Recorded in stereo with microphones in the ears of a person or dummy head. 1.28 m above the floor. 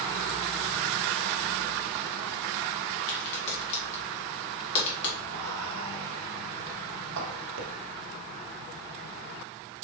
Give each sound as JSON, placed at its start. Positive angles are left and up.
{"t": 3.1, "sound": "a crack", "side_deg": 60, "distance_m": 1.8}
{"t": 5.3, "sound": "whispering", "side_deg": -70, "distance_m": 1.4}